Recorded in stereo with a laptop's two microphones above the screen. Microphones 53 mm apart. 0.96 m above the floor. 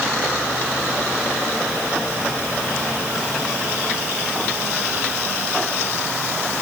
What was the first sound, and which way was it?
Only background noise.